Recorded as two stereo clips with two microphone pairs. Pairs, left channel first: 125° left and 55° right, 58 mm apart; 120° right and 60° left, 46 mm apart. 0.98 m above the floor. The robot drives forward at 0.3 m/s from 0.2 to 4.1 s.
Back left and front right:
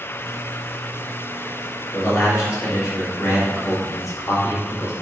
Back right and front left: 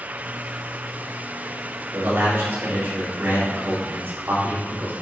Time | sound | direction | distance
1.9 | a man speaking | 90° left | 2.5 m